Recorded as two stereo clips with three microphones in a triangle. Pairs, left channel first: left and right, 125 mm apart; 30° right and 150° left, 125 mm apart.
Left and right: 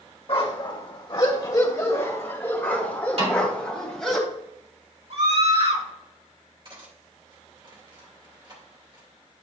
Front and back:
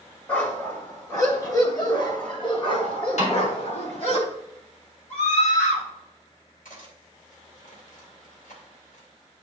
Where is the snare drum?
55° right, 3.5 m.